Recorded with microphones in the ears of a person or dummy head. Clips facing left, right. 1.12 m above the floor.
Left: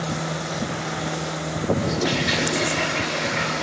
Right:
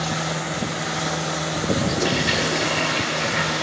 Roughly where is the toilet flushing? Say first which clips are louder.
Right 1 dB; centre.